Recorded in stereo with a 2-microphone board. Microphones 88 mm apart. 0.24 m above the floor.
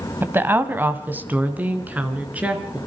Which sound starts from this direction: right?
A woman speaking, at 0.2 s.